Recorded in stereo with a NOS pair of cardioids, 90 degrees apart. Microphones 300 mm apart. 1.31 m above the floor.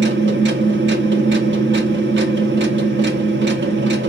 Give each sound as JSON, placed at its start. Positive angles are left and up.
{"t": 0.0, "sound": "a machine running", "azimuth_deg": -40, "distance_m": 1.0}